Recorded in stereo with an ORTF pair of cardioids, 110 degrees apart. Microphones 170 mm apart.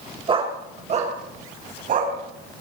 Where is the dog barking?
35° right, 3 m; by 2.1 s 55° right, 5 m.